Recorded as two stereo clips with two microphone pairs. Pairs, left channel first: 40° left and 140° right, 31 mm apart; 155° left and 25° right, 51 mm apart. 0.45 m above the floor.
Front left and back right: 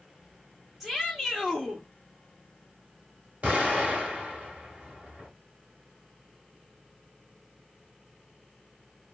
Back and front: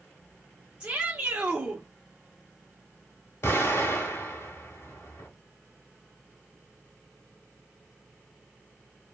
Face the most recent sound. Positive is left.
turn(degrees=180)